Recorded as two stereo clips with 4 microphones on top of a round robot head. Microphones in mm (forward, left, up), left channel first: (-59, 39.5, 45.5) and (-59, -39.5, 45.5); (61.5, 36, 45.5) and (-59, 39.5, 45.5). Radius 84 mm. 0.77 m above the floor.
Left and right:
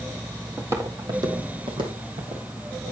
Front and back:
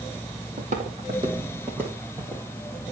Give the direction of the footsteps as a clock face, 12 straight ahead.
5 o'clock.